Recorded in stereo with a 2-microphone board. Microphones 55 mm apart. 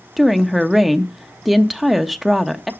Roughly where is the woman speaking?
Centre.